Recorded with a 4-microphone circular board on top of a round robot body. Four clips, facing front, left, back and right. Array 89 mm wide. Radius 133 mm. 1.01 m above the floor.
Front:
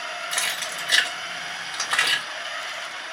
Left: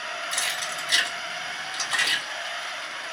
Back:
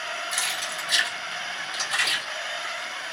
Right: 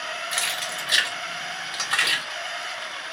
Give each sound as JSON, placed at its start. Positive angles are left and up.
{"t": 0.3, "sound": "keys jangling", "azimuth_deg": -20, "distance_m": 1.3}